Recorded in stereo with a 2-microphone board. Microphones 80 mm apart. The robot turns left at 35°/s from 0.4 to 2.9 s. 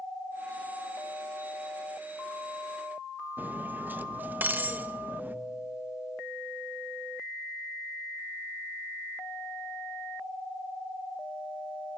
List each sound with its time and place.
3.4 s cutlery clinking: 25° right (ahead or behind), 0.9 m